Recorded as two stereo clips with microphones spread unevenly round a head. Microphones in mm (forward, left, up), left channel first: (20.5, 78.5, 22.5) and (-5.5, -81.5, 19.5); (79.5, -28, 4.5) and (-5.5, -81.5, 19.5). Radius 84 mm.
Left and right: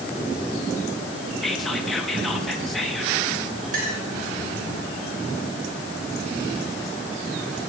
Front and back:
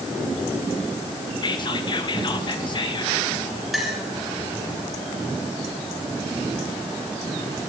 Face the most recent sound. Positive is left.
turn(degrees=-60)